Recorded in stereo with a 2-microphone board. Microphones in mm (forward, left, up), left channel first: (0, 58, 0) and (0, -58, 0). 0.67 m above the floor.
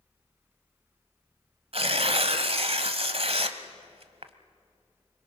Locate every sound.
1.7 s tearing paper: 60° right (ahead or behind), 1.1 m